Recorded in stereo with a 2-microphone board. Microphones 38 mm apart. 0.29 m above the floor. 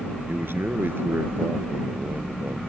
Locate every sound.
0.3 s a man speaking: 75° right (ahead or behind); by 2.6 s 80° right